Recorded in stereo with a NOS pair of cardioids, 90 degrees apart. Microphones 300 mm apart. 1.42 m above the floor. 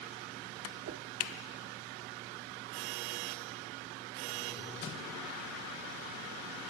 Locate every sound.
0.8 s a whoosh: 55° right, 0.8 m